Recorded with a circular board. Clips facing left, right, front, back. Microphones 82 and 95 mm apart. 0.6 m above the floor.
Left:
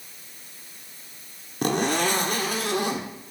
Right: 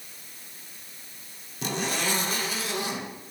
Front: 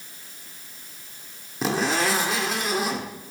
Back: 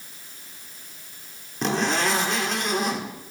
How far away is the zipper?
About 1.5 m.